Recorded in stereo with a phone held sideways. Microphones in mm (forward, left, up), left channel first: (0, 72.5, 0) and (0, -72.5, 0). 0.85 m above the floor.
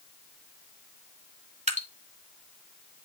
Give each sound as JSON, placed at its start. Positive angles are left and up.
{"t": 1.7, "sound": "dripping", "side_deg": -50, "distance_m": 1.6}